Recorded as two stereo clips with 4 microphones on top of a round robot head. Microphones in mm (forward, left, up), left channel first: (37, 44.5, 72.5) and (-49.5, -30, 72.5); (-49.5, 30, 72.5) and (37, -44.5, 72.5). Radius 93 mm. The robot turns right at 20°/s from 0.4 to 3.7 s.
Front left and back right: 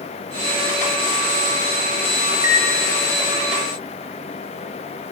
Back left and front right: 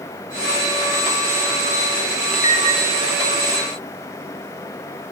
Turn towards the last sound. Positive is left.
turn(degrees=-175)